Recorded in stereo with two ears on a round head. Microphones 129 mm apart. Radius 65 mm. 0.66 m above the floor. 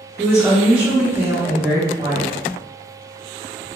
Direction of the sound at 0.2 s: 10° right (ahead or behind).